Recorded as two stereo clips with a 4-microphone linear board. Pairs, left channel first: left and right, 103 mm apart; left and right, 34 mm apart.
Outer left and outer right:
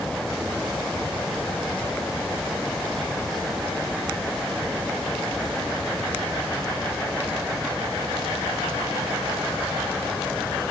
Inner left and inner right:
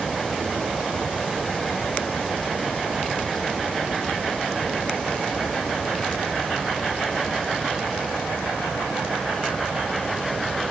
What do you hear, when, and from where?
Only background noise.